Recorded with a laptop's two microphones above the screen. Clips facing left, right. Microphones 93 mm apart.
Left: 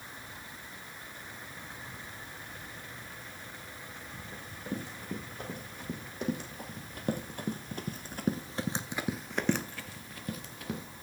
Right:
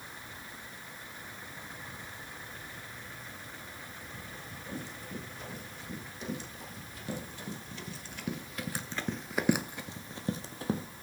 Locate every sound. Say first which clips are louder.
4.3 s running footsteps: left 4 dB; 55° left (ahead or behind), 4.5 m; by 10.9 s 35° right (ahead or behind), 2 m